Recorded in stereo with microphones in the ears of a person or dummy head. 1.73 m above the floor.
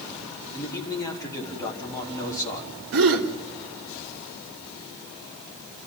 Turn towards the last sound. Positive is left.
turn(degrees=-55)  # may be behind; listen again after turning